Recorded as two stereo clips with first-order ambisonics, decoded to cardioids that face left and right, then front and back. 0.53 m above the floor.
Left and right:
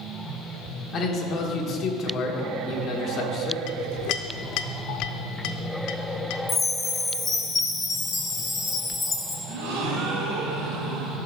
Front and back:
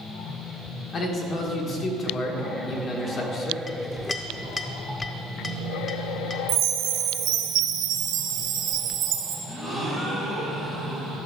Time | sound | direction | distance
0.9 | a man speaking | 50° left | 1.4 m
3.7 | a clink | 75° left | 0.6 m
6.5 | a chime | 165° left | 1.4 m
9.5 | a gasp | 80° right | 2.5 m